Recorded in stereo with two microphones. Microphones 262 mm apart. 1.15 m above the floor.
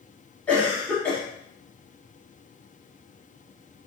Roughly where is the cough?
Centre.